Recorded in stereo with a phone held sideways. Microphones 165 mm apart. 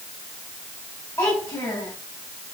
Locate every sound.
1.2 s a child speaking: 15° left (ahead or behind), 5 m